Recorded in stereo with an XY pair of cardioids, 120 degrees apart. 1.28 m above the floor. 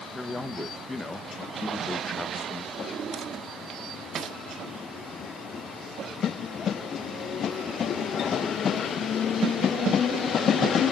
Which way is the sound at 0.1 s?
15° left.